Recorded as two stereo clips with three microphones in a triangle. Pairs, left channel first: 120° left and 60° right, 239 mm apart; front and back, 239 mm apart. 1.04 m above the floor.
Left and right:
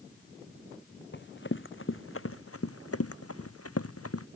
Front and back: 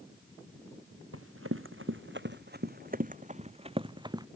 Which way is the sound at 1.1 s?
160° left.